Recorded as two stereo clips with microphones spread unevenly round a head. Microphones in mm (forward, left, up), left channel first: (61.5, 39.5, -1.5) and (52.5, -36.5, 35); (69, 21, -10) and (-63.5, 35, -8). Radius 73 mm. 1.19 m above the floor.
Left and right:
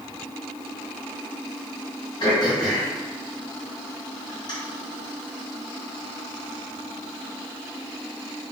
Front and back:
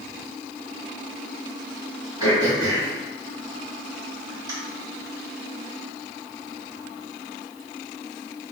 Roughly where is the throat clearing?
Behind left.